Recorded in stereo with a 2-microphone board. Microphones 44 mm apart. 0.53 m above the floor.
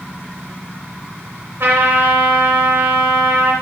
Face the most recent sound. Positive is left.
turn(degrees=-65)  # may be behind; listen again after turning